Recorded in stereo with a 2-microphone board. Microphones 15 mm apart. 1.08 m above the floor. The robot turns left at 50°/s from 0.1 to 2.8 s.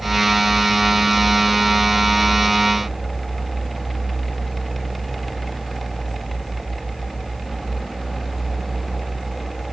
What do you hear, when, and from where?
Only background noise.